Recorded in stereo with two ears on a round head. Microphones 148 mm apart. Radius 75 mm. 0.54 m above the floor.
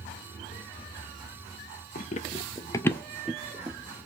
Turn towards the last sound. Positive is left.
turn(degrees=-25)  # may be behind; listen again after turning